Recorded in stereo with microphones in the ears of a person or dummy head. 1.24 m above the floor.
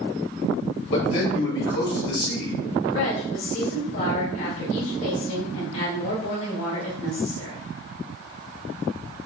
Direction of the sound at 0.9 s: 55° left (ahead or behind).